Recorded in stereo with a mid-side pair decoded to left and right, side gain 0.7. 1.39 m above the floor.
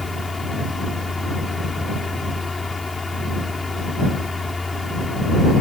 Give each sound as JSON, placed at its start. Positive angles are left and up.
{"t": 0.0, "sound": "a fan", "azimuth_deg": 15}